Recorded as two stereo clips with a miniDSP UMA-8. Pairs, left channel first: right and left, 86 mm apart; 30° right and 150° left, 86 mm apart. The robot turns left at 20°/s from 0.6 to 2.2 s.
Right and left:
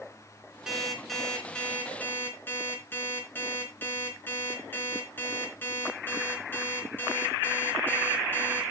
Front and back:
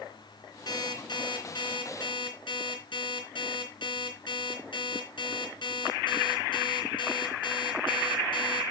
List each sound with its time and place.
0.7 s an alarm clock: 5° left, 3.5 m; by 8.7 s 25° right, 3.5 m